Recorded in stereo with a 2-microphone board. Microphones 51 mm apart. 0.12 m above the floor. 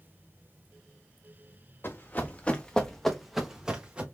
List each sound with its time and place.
1.8 s running footsteps: 40° left (ahead or behind), 1.4 m; by 4.0 s 25° right (ahead or behind), 1.5 m